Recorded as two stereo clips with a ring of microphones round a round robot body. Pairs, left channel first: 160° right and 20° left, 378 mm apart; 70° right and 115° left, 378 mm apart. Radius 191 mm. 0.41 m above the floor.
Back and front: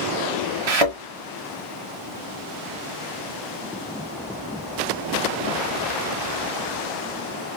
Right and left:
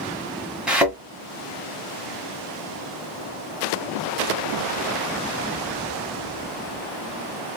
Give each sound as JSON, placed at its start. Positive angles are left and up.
{"t": 0.7, "sound": "a thud", "azimuth_deg": 25, "distance_m": 1.6}